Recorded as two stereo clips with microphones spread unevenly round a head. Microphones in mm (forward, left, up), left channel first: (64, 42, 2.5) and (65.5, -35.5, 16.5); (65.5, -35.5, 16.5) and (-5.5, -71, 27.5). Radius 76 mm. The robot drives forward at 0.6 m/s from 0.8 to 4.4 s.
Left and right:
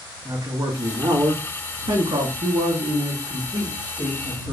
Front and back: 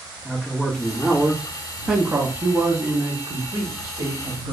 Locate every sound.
0.2 s a man speaking: 50° right, 1.3 m; by 4.5 s 145° right, 1.7 m